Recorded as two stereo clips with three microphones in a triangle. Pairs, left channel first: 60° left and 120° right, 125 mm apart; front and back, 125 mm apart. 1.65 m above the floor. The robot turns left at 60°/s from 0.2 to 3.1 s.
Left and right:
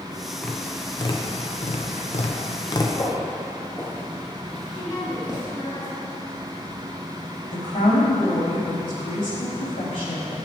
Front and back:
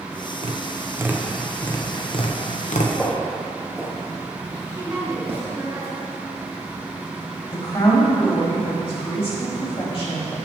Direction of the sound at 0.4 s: 145° left.